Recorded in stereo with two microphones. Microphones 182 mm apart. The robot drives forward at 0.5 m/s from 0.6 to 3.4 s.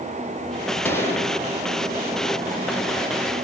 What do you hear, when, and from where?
0.8 s a gunshot: 15° left (ahead or behind), 7 m